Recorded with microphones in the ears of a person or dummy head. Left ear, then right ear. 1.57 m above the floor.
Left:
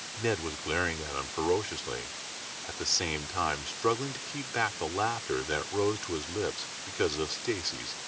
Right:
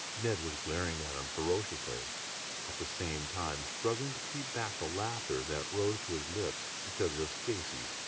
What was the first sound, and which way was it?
A man speaking, 80° left.